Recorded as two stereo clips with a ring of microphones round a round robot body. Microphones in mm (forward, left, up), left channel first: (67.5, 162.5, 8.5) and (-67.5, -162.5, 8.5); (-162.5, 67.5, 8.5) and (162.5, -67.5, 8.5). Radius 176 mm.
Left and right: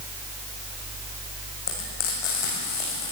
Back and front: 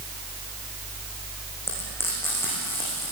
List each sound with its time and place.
1.7 s frying: 75° left, 9.5 m